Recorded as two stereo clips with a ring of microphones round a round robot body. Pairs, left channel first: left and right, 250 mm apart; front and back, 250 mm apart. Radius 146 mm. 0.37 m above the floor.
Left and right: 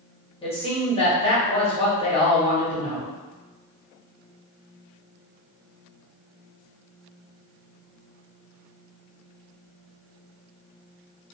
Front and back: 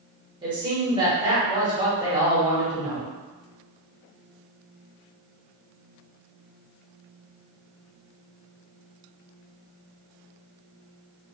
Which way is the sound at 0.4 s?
130° left.